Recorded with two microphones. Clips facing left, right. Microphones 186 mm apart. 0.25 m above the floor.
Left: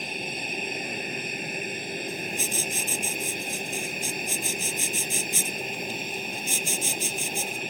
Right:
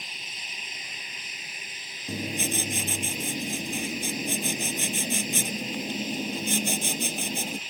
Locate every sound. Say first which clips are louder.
0.0 s an aircraft: left 14 dB; 60° left (ahead or behind)
2.1 s writing: right 2 dB; 70° right (ahead or behind)